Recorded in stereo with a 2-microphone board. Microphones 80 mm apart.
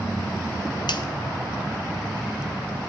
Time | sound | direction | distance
0.9 | a finger snap | 70° left (ahead or behind) | 0.5 m